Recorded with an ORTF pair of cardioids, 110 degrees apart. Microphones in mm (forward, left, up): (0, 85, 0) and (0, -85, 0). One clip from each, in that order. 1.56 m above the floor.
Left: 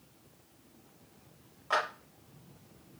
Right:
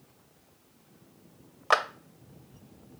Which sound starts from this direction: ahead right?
A clap, at 1.7 s.